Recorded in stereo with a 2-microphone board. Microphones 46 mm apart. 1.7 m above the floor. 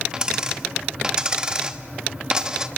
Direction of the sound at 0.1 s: 20° right (ahead or behind).